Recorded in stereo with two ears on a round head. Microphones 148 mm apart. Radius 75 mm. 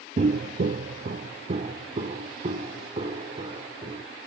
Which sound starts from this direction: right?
Footsteps, at 0.2 s.